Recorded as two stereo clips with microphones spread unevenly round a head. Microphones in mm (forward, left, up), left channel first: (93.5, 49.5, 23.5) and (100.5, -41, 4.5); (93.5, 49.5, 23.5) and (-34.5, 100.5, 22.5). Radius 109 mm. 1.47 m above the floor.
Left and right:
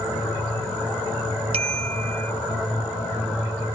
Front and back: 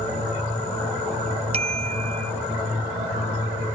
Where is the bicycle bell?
135° right.